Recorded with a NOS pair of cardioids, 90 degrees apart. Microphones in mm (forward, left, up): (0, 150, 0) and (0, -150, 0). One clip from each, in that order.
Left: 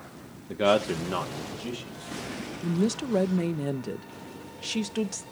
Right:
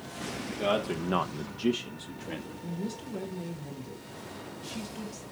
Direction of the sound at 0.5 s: 45° left.